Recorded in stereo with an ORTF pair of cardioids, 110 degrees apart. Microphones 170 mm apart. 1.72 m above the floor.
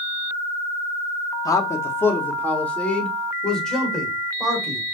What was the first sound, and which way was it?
A man speaking, 20° left.